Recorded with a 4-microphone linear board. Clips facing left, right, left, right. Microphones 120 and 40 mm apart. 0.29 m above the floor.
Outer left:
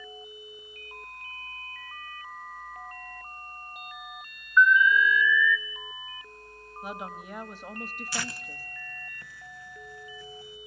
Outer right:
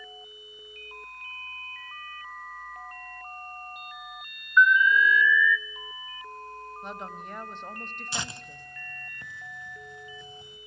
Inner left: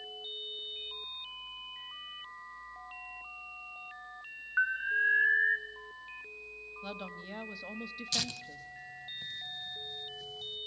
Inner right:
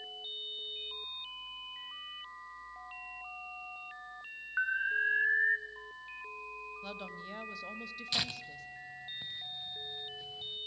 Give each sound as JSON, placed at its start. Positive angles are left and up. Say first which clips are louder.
{"t": 4.6, "sound": "an alarm", "louder": "even, inner left 2 dB", "side_deg": 5, "distance_m": 0.9}
{"t": 6.8, "sound": "a woman speaking", "louder": "outer left 3 dB, inner left 1 dB", "side_deg": 10, "distance_m": 1.0}
{"t": 8.1, "sound": "tearing paper", "louder": "outer right 1 dB, inner right 2 dB", "side_deg": -25, "distance_m": 0.6}